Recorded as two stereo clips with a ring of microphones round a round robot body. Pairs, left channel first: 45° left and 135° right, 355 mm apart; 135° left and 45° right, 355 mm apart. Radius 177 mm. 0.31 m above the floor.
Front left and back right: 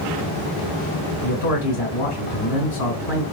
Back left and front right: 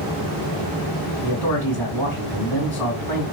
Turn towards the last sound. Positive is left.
turn(degrees=50)